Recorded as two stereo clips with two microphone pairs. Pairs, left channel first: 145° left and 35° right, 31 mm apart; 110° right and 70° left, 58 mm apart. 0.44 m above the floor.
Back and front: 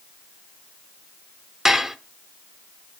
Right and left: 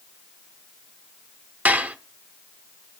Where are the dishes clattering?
35° left, 0.6 m.